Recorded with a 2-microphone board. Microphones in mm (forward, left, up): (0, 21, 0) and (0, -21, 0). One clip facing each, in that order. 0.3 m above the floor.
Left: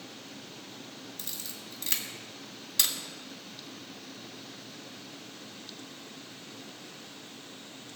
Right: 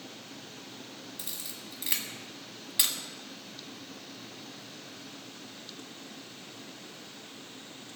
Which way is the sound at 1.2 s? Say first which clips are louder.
Even; 15° right (ahead or behind).